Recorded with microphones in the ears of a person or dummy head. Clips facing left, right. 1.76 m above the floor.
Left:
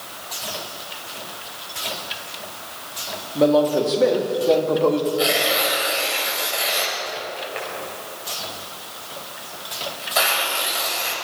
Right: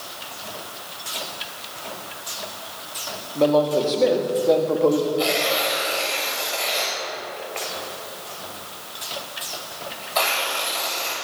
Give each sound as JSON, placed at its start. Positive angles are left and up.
{"t": 3.4, "sound": "a man speaking", "side_deg": 15, "distance_m": 3.5}
{"t": 5.2, "sound": "tearing paper", "side_deg": 10, "distance_m": 7.5}